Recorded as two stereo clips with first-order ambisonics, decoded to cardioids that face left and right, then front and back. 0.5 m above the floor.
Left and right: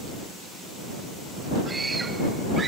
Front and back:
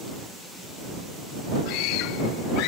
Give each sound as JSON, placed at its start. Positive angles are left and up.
{"t": 1.7, "sound": "a scream", "azimuth_deg": -15}